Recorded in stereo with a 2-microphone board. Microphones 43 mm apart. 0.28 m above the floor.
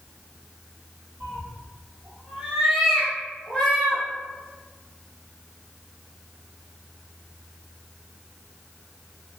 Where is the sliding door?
No sliding door in this recording.